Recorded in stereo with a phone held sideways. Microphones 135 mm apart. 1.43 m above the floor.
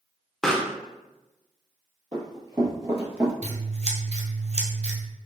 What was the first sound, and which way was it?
A pop, 5° left (ahead or behind).